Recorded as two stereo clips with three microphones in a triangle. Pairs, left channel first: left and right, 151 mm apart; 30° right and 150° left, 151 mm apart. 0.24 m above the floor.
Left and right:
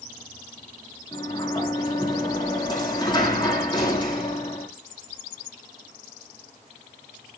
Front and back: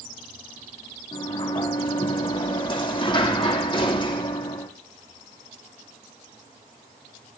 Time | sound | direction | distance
1.1 | a sliding door | 30° left | 5.5 m